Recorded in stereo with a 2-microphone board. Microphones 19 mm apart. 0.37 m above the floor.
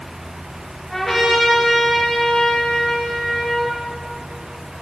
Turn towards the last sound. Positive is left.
turn(degrees=5)  # may be behind; listen again after turning